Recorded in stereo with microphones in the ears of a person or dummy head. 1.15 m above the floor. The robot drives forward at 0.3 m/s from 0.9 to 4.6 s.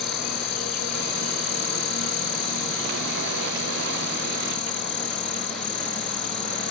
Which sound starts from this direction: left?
An insect, at 0.0 s.